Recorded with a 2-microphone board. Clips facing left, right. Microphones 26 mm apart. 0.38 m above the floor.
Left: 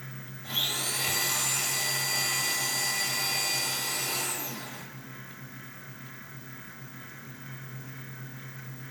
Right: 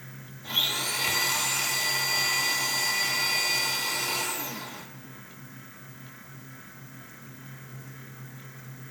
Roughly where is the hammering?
I don't hear hammering.